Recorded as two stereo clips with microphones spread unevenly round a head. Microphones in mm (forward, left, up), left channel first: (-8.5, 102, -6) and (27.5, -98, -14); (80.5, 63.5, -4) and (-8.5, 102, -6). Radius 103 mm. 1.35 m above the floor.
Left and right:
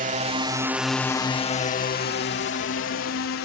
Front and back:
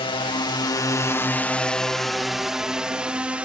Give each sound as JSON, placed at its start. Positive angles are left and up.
{"t": 0.0, "sound": "a drone", "azimuth_deg": -45}